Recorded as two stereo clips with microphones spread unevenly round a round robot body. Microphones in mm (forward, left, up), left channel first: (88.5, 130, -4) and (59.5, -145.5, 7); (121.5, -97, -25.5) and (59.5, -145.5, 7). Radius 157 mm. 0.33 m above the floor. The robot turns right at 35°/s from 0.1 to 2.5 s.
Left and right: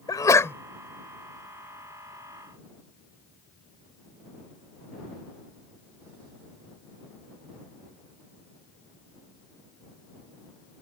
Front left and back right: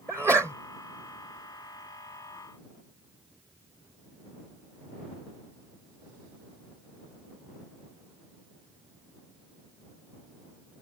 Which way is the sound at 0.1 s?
135° left.